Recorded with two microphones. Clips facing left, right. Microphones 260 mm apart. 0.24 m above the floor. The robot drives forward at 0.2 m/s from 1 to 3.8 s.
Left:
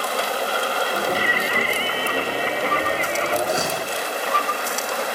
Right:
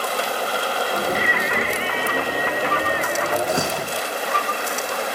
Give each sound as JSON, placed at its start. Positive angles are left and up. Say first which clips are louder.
{"t": 1.1, "sound": "singing", "louder": "right 1 dB", "side_deg": 35, "distance_m": 0.8}
{"t": 3.5, "sound": "a door slam", "louder": "right 1 dB", "side_deg": -15, "distance_m": 8.0}